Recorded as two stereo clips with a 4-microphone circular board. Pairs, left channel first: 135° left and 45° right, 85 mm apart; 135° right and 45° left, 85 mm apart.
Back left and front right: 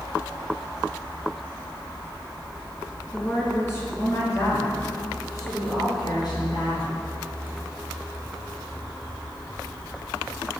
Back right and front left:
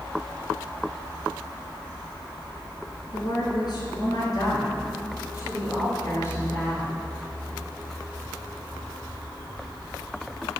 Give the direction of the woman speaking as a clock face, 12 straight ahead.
5 o'clock.